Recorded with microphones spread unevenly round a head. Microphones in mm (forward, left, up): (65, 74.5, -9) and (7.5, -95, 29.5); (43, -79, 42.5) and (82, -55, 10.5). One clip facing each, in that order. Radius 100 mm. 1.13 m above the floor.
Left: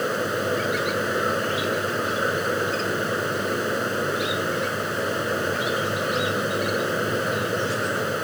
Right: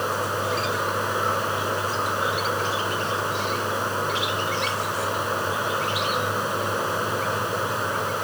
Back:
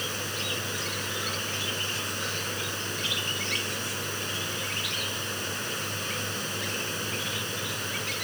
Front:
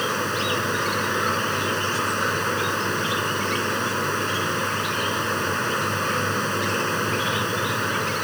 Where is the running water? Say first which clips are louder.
Left 2 dB, front 10 dB; 5° left.